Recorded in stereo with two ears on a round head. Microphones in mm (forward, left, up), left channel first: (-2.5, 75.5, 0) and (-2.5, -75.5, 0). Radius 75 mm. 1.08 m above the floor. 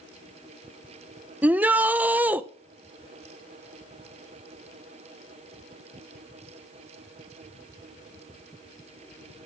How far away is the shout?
About 0.7 m.